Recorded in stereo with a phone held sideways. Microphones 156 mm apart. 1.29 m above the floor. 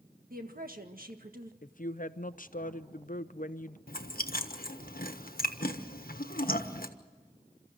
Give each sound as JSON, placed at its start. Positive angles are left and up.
{"t": 0.3, "sound": "a woman speaking", "side_deg": -65, "distance_m": 1.7}
{"t": 1.6, "sound": "a woman speaking", "side_deg": 60, "distance_m": 0.7}
{"t": 3.9, "sound": "chewing", "side_deg": 65, "distance_m": 1.3}